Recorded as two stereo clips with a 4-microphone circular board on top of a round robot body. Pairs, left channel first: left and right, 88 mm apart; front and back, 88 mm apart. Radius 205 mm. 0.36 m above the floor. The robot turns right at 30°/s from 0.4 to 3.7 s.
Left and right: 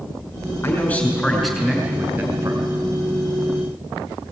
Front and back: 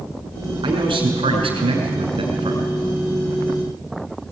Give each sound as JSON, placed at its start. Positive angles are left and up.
{"t": 0.6, "sound": "a man speaking", "azimuth_deg": 155, "distance_m": 6.0}